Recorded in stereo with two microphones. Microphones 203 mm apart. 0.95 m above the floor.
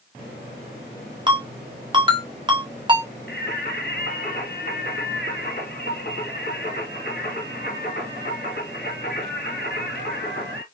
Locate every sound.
1.3 s a ringtone: 25° right (ahead or behind), 1.5 m
3.3 s singing: 55° left (ahead or behind), 1.7 m